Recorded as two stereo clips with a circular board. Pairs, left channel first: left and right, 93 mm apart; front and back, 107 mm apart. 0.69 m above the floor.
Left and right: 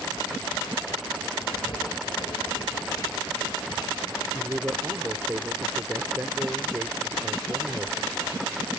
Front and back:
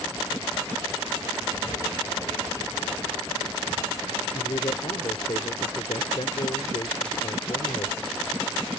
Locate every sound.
1.4 s writing: 55° left
4.3 s a man speaking: 25° right